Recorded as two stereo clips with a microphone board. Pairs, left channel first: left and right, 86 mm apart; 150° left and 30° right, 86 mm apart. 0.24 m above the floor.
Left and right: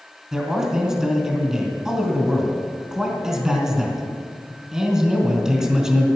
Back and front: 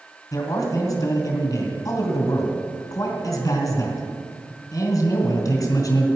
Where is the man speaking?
170° right, 2.5 m.